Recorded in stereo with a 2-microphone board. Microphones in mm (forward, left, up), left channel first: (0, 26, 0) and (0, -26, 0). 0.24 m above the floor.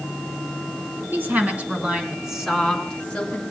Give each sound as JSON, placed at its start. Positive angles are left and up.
{"t": 1.1, "sound": "a woman speaking", "side_deg": -45, "distance_m": 3.0}